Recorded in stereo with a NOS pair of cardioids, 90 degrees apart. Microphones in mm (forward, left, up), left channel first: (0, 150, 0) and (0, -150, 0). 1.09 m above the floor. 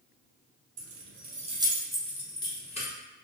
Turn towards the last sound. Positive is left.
turn(degrees=25)